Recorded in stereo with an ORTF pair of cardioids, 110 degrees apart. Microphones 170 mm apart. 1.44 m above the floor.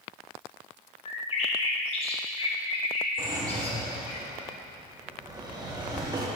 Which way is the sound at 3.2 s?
25° right.